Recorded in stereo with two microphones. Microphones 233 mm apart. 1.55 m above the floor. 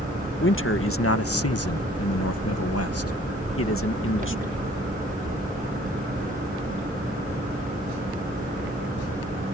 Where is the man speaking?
55° left (ahead or behind); by 4.7 s 50° left (ahead or behind).